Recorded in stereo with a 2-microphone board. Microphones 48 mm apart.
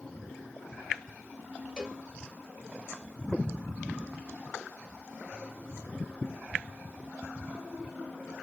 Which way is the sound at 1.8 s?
10° left (ahead or behind).